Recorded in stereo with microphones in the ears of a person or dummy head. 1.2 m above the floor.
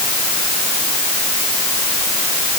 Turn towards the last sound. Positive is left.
No sound to turn to.